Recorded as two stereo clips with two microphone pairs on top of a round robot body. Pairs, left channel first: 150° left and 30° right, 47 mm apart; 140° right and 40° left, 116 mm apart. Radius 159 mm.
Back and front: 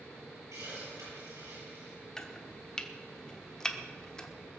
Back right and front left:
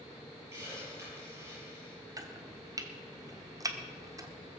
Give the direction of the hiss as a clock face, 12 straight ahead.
1 o'clock.